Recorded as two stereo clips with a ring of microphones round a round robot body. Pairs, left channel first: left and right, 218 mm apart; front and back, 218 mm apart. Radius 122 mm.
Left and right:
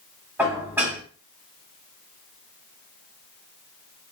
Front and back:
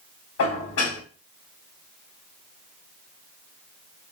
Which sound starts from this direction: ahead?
Dishes clattering, at 0.4 s.